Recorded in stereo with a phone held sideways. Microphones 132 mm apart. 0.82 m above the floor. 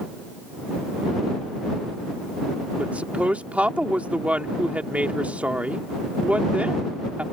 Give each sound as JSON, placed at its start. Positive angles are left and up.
{"t": 2.8, "sound": "a woman speaking", "side_deg": -10}